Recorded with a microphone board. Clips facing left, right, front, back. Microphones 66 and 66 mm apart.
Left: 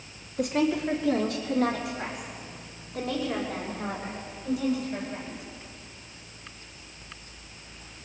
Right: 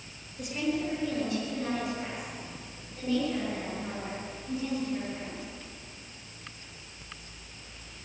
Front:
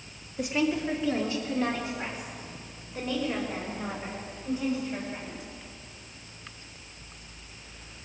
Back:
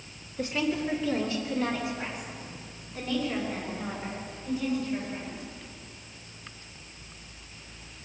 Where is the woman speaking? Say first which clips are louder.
Left 6 dB, front 2 dB; 75° left, 2.5 m; by 5.4 s 65° left, 8 m.